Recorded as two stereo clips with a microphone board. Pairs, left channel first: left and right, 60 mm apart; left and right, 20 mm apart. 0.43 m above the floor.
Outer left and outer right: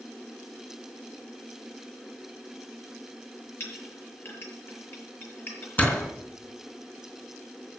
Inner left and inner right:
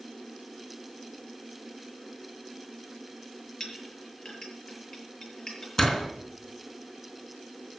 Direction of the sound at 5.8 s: 25° left (ahead or behind).